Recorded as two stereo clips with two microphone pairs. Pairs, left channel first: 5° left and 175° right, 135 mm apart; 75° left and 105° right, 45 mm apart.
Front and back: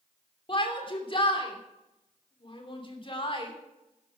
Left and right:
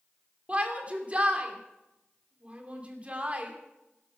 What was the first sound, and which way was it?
A shout, 45° right.